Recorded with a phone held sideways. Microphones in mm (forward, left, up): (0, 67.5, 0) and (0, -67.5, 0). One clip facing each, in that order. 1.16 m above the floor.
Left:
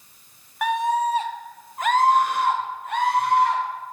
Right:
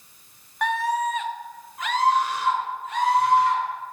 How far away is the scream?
About 0.5 m.